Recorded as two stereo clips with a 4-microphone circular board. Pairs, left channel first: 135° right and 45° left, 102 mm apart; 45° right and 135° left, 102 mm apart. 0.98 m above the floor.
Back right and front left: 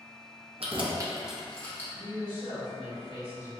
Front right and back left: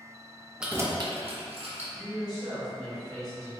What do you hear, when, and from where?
0.6 s keys jangling: 55° left, 0.6 m; by 1.8 s 155° left, 1.0 m
1.9 s a woman speaking: 40° left, 1.9 m